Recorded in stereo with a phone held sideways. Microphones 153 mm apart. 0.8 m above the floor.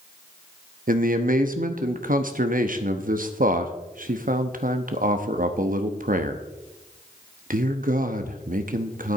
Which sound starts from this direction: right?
A man speaking, at 0.9 s.